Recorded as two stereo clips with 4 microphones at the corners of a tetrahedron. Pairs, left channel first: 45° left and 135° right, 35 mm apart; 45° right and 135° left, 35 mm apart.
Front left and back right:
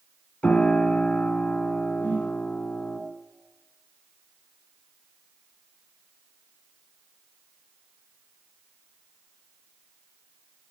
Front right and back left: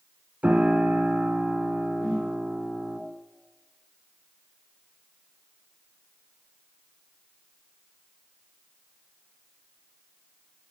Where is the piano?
90° left, 1.8 m.